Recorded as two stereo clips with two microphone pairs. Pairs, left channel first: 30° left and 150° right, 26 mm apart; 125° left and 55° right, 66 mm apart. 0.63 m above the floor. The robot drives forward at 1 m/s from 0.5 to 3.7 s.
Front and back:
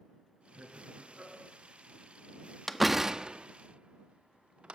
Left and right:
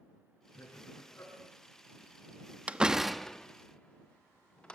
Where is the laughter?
175° left, 9 m.